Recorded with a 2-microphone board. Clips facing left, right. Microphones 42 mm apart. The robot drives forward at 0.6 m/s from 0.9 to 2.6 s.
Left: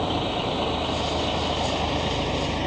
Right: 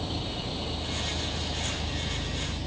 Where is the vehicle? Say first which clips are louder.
Left 9 dB; 50° left (ahead or behind); by 2.7 s 60° left (ahead or behind).